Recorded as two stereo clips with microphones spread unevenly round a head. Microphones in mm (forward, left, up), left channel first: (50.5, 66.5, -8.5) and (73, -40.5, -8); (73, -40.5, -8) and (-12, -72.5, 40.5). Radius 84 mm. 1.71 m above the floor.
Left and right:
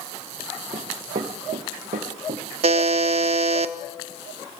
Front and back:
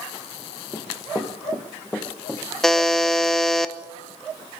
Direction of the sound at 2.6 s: 85° right.